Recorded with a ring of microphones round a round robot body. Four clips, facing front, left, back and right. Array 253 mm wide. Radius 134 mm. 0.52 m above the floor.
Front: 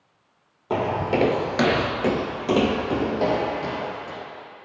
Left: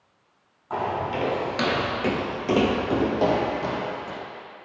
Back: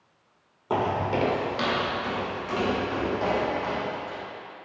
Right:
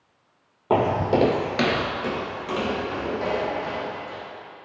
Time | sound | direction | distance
0.7 | footsteps | 80° right | 1.0 m